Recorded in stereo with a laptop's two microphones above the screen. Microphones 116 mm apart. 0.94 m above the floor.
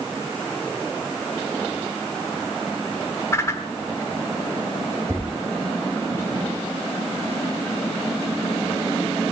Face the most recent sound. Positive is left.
turn(degrees=-20)  # may be behind; listen again after turning